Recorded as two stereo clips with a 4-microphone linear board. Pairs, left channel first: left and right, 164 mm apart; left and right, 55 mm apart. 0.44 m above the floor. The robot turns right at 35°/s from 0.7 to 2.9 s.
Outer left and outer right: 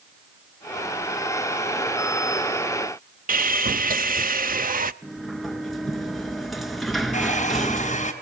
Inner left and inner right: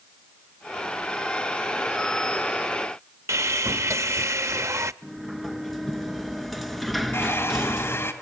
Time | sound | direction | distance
3.3 | sawing | 60° right (ahead or behind) | 0.6 m
5.0 | a sliding door | centre (ahead or behind) | 1.6 m
7.1 | a hair dryer | 45° left (ahead or behind) | 3.5 m